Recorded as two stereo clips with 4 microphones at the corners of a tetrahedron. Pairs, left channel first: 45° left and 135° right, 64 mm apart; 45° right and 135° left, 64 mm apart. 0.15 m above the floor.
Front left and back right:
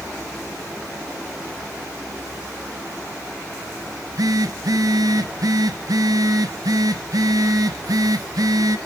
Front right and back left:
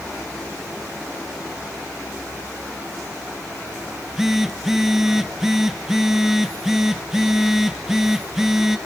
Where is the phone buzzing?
140° right, 0.9 m.